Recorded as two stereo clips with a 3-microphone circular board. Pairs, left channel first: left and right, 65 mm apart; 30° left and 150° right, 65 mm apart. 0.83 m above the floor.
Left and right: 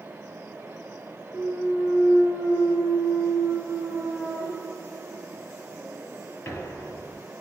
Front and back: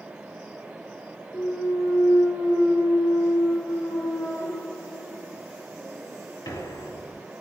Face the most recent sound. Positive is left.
turn(degrees=35)